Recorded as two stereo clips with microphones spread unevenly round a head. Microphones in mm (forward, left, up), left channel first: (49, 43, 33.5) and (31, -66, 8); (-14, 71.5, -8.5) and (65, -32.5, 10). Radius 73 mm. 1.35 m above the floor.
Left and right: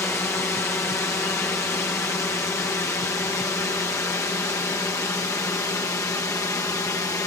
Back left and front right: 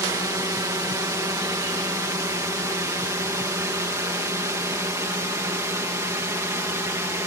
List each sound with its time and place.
0.0 s a drone: 10° left; by 7.3 s 15° left